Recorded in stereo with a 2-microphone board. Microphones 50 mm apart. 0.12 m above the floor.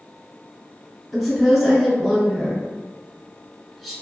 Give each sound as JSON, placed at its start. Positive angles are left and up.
{"t": 1.1, "sound": "a woman speaking", "side_deg": 0, "distance_m": 1.1}